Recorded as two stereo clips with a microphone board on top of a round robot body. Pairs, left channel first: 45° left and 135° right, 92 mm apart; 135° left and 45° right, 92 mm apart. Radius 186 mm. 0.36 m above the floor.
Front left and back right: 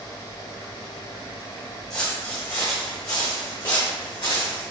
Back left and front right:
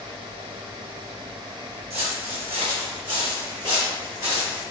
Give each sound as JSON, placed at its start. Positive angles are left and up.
{"t": 1.9, "sound": "footsteps", "azimuth_deg": -40, "distance_m": 1.2}